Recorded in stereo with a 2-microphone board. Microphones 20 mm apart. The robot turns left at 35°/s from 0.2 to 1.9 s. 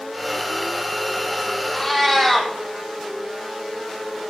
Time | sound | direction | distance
1.7 | a cat meowing | 25° left (ahead or behind) | 2.5 m